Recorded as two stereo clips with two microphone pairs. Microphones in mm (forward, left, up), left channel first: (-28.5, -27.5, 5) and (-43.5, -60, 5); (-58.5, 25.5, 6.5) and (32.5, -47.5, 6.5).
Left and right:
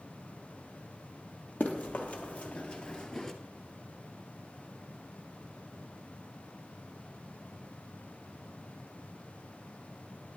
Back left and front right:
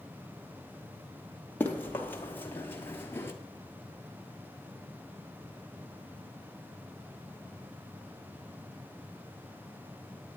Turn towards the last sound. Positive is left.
turn(degrees=120)